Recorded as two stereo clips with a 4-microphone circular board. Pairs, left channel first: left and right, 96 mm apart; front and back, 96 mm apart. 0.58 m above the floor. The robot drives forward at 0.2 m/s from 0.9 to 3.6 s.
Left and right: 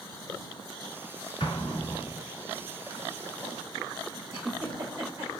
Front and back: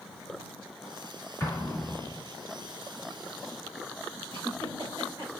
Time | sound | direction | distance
1.4 | an explosion | 65° left | 1.4 m
4.3 | a giggle | 150° right | 2.5 m